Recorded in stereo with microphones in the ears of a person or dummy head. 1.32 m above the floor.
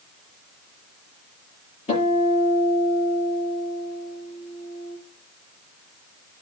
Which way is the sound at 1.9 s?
35° left (ahead or behind).